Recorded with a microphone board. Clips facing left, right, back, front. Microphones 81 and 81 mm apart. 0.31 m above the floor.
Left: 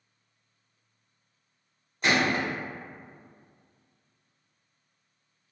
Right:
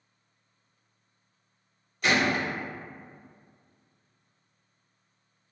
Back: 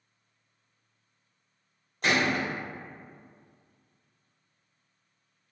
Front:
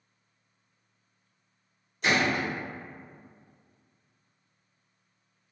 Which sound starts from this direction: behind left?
A gunshot, at 2.0 s.